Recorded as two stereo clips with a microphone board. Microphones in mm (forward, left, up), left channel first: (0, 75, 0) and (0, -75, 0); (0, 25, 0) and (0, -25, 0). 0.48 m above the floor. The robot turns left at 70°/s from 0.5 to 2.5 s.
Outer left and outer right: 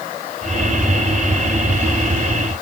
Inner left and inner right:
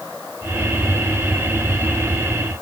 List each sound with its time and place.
Only background noise.